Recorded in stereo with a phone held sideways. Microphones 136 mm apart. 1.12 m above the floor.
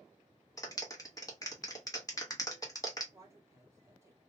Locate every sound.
0.6 s a clap: 25° left (ahead or behind), 0.9 m
3.1 s a woman speaking: 20° right (ahead or behind), 1.0 m